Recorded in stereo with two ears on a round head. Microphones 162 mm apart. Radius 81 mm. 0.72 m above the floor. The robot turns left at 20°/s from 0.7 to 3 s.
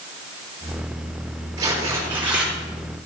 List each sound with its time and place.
1.6 s tearing paper: 20° right (ahead or behind), 4 m; by 2.5 s 5° right (ahead or behind), 4 m